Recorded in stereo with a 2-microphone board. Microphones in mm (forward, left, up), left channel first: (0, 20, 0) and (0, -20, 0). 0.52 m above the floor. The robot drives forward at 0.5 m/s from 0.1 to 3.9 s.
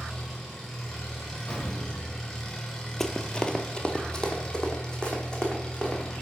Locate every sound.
0.0 s an engine running: 10° left (ahead or behind), 3.5 m; by 6.2 s 25° left (ahead or behind), 1.9 m
1.5 s an explosion: 25° left (ahead or behind), 2.5 m; by 2.2 s 30° left (ahead or behind), 2.5 m
3.0 s running footsteps: 10° left (ahead or behind), 0.6 m; by 6.0 s 20° left (ahead or behind), 2 m